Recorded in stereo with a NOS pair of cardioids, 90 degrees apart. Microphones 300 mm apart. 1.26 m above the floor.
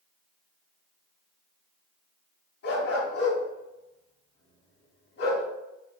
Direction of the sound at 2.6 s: 55° left.